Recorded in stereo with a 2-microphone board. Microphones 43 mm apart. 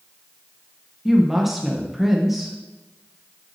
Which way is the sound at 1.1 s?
5° right (ahead or behind).